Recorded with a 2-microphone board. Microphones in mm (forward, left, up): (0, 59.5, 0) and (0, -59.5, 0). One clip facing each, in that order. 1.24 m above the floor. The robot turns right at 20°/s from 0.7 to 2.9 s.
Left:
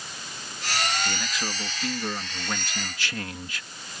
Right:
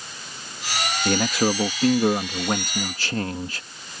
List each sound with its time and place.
1.1 s a man speaking: 75° right; by 3.6 s 40° right